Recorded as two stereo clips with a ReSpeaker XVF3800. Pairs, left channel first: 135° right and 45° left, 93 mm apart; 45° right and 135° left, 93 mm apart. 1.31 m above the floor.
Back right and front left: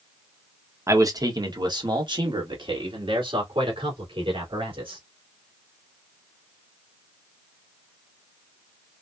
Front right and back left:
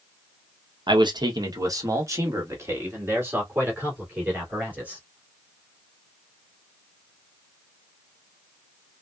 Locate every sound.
0.9 s a man speaking: 100° left, 1.0 m; by 5.0 s 60° left, 3.5 m